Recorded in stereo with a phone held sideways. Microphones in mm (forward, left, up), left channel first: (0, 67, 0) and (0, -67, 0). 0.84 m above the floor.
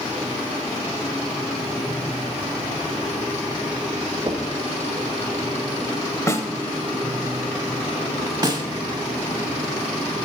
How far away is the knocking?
About 0.8 m.